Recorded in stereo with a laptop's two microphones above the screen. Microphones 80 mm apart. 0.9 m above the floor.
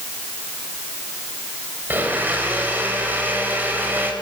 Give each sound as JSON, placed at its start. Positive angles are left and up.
{"t": 1.9, "sound": "a blender", "side_deg": -25, "distance_m": 3.5}